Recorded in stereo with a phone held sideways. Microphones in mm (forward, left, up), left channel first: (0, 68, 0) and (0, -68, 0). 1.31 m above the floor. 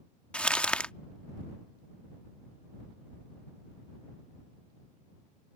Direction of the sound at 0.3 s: 10° left (ahead or behind).